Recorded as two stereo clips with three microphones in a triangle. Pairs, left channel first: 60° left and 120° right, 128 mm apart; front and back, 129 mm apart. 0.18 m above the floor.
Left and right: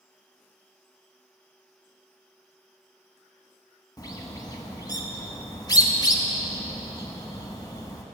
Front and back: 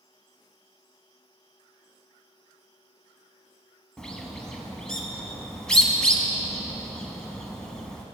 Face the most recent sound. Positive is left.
turn(degrees=80)